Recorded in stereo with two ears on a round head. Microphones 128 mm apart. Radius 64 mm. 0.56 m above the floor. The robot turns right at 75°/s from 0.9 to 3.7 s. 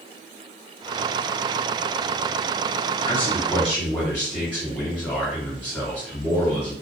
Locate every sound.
3.0 s a man speaking: 120° left, 1.8 m; by 6.7 s 170° left, 1.8 m